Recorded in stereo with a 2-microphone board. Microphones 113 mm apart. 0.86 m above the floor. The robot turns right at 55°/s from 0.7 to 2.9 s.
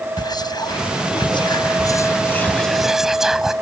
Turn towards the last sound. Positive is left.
turn(degrees=-175)